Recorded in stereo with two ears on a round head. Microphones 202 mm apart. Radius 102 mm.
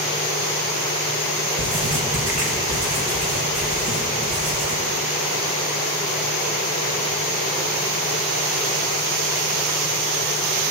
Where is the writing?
65° right (ahead or behind), 6 m.